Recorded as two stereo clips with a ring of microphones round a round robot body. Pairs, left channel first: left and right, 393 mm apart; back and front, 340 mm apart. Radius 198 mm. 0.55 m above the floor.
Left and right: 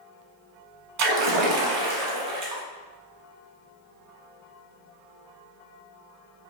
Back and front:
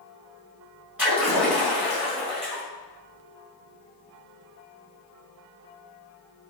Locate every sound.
1.0 s a splash: 85° right, 0.9 m